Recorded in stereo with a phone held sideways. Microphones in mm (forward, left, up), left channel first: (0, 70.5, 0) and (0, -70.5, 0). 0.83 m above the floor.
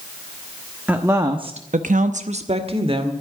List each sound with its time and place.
0.9 s a woman speaking: 10° right (ahead or behind), 1.2 m; by 3.1 s 40° right (ahead or behind), 2 m